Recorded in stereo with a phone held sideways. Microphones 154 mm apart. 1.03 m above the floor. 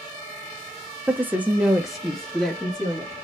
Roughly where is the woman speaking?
Centre.